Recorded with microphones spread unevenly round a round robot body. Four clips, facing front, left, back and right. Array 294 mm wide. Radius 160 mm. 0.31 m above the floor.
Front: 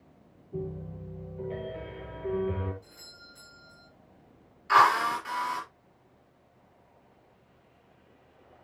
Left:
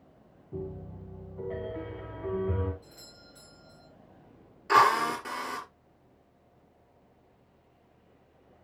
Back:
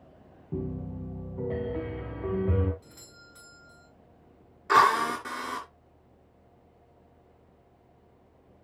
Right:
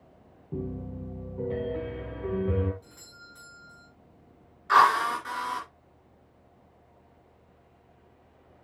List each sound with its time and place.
0.5 s a piano: 150° right, 2.5 m
2.8 s a doorbell: 170° left, 5.5 m
4.7 s a drill: 140° left, 5 m